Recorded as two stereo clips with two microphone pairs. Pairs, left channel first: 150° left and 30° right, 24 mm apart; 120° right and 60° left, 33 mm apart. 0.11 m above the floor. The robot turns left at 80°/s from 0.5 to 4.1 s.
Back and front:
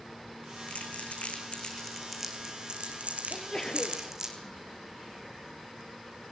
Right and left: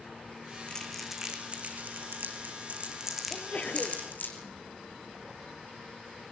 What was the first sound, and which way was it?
Crumpling, 175° left.